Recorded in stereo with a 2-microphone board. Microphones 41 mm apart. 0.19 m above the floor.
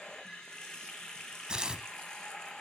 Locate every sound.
0.0 s running water: 15° left (ahead or behind), 1.5 m
1.5 s tearing paper: 15° right (ahead or behind), 0.9 m